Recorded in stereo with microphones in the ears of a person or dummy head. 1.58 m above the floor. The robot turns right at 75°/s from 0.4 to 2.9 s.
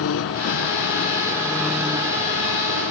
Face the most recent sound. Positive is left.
turn(degrees=-90)